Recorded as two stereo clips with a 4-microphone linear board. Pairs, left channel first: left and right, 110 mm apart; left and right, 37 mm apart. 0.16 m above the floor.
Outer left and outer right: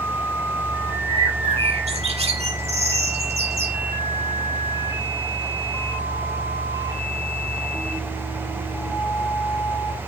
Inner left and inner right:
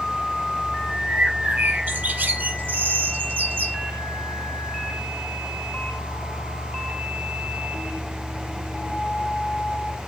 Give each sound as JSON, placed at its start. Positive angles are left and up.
{"t": 1.1, "sound": "a bird", "side_deg": -70, "distance_m": 4.0}